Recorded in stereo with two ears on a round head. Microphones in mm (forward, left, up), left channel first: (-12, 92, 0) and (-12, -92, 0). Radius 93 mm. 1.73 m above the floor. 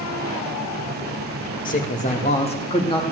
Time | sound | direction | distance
1.6 | a man speaking | 40° left (ahead or behind) | 2 m